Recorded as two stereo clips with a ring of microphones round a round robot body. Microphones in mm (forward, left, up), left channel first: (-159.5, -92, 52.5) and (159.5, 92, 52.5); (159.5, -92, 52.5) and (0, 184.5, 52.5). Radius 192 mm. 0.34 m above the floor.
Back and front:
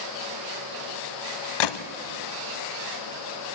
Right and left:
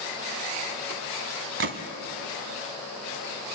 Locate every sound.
1.6 s a gunshot: straight behind, 0.9 m